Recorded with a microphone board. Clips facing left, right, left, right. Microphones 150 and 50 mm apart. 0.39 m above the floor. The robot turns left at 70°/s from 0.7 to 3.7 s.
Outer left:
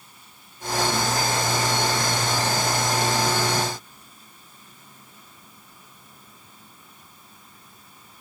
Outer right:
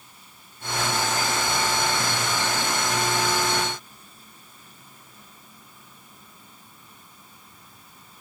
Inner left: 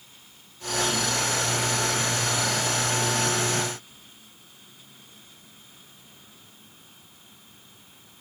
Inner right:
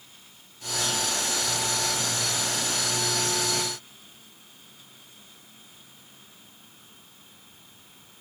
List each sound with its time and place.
Only background noise.